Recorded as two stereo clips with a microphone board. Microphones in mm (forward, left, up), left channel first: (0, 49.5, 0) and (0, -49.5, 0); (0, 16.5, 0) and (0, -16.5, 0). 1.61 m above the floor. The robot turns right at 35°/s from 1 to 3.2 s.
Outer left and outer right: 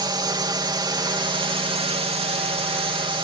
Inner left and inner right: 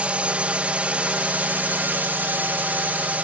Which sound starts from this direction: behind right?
A drone, at 0.0 s.